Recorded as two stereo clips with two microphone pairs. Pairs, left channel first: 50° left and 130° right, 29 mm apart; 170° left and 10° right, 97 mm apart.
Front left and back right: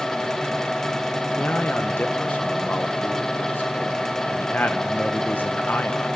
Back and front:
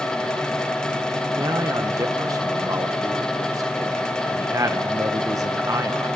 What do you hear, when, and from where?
1.4 s a man speaking: 45° left, 1.2 m